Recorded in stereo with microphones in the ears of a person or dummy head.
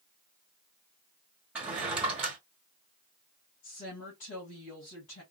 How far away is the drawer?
About 0.9 m.